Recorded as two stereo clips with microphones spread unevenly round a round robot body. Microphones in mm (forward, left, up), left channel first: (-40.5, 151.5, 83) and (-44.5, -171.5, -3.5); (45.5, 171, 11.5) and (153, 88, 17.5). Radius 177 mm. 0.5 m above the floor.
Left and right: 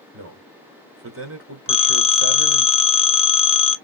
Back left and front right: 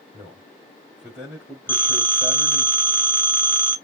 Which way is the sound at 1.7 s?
175° left.